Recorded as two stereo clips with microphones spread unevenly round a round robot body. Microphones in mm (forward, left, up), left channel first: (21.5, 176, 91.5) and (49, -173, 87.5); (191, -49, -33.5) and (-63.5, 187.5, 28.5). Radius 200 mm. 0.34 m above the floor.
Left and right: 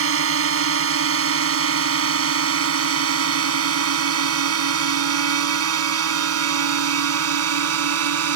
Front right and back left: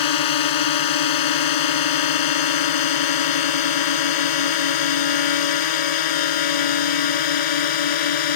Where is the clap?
No clap in this recording.